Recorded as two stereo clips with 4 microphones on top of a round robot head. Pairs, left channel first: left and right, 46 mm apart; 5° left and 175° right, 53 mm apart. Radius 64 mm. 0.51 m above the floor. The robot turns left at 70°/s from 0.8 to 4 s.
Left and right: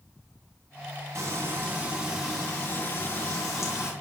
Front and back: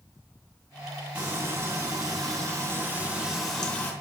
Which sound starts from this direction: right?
Frying, at 1.1 s.